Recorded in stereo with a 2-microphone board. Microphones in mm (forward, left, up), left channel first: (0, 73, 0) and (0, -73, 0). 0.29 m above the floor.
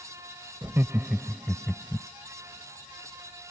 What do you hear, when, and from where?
0.6 s laughter: 20° right (ahead or behind); by 2.1 s 15° left (ahead or behind)